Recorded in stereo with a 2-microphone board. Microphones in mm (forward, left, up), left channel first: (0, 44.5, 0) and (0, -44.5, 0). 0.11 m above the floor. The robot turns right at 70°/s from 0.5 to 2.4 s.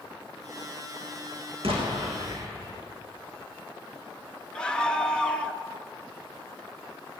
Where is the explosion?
90° right, 6.5 m; by 2.8 s 35° right, 6.5 m.